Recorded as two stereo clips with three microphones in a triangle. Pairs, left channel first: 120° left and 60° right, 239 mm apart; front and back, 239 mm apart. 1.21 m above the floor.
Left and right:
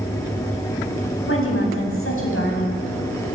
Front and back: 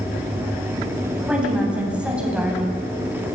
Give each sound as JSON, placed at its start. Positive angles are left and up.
{"t": 1.3, "sound": "a woman speaking", "azimuth_deg": 95, "distance_m": 8.5}